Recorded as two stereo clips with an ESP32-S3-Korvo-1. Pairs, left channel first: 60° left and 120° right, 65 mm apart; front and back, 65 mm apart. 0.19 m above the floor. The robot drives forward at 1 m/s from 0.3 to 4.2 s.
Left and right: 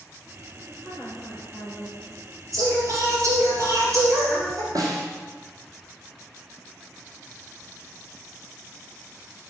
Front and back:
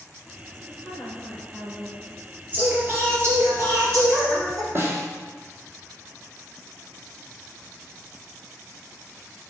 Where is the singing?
120° right, 2.5 m; by 4.7 s 150° right, 3.5 m.